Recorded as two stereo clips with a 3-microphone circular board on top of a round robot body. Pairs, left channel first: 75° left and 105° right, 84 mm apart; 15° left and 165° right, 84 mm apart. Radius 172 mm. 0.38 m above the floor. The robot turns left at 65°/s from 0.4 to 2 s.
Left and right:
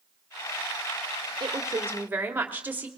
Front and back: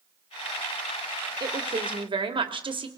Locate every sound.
1.4 s a woman speaking: 135° right, 1.9 m; by 2.9 s 170° right, 1.9 m